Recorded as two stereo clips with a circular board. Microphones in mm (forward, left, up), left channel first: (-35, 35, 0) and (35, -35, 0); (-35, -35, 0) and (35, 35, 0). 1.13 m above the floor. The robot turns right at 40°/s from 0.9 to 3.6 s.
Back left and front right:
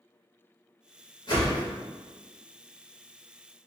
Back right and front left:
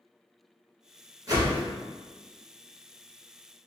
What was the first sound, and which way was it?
A whoosh, 95° left.